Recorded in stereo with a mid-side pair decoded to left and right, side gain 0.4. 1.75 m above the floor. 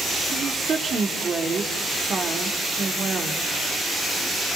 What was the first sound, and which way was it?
A woman speaking, 50° right.